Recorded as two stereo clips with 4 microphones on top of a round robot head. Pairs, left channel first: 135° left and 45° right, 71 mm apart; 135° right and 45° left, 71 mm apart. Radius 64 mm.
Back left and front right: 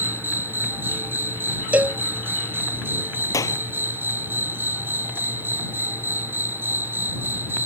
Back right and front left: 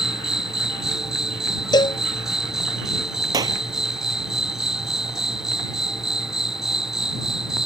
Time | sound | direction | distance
0.0 | an insect | 30° right | ?
1.7 | a cowbell | 115° right | ?
3.3 | a clap | 90° left | ?